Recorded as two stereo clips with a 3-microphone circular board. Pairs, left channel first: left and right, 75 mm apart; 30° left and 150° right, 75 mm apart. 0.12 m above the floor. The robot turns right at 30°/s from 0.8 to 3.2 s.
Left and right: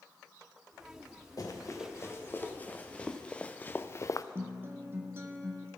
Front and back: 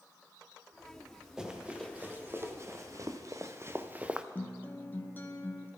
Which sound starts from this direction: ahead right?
A guitar, at 4.3 s.